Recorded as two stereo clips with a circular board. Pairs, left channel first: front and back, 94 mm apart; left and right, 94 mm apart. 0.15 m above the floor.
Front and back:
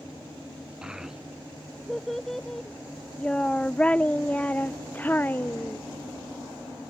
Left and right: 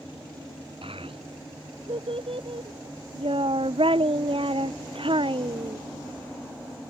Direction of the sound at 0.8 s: 100° right.